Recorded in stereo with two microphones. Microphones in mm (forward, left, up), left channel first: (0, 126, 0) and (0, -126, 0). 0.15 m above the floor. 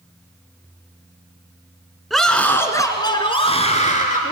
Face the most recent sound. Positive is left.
turn(degrees=35)  # may be behind; listen again after turning